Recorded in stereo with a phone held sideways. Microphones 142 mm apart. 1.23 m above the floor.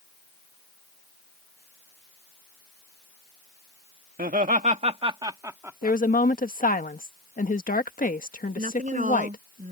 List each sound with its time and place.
4.2 s laughter: 80° right; by 6.0 s 10° right (ahead or behind)
5.8 s a woman speaking: 75° left (ahead or behind)
8.6 s a woman speaking: 65° right (ahead or behind)